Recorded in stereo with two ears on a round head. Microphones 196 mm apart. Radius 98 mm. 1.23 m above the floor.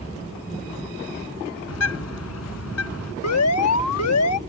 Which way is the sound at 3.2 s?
85° left.